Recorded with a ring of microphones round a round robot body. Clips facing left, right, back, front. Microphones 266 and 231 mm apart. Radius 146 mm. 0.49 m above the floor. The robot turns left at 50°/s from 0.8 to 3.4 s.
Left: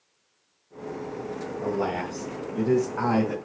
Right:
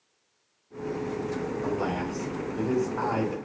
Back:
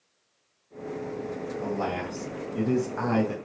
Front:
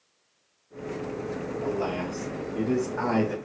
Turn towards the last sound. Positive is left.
turn(degrees=120)